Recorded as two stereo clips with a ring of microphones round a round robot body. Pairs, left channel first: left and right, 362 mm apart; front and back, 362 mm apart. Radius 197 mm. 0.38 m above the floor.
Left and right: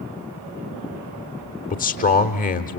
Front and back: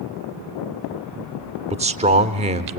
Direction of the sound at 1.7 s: 130° left.